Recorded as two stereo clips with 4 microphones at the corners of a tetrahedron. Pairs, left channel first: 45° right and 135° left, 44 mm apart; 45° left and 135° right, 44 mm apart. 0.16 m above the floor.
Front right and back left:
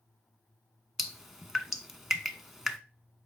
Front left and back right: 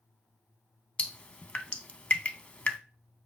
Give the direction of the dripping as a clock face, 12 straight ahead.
10 o'clock.